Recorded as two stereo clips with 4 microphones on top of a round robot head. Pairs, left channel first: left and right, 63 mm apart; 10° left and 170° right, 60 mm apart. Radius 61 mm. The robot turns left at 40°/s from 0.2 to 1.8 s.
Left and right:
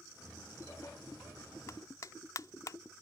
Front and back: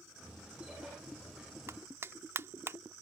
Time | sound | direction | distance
1.7 | a clap | 145° left | ?